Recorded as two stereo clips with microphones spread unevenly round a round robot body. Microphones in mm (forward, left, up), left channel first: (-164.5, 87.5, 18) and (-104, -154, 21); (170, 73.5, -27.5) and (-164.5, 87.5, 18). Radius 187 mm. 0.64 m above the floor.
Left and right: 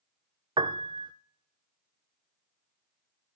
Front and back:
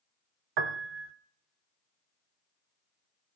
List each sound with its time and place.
0.6 s a piano: 150° right, 0.8 m